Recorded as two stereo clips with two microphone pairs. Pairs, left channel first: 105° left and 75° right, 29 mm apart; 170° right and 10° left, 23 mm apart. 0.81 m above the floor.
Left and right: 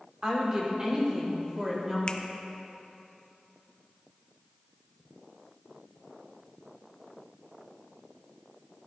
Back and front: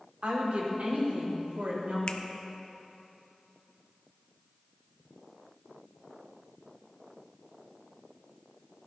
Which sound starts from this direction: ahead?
A woman speaking, at 0.2 s.